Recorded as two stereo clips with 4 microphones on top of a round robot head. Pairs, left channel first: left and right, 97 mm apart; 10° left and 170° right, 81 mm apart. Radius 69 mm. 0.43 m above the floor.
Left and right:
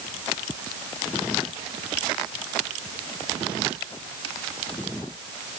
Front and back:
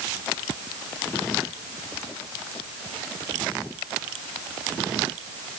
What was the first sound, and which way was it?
Only background noise.